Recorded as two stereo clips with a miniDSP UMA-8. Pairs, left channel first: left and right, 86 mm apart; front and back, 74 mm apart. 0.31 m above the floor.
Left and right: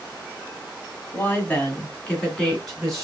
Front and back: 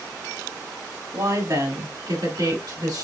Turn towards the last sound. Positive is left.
turn(degrees=180)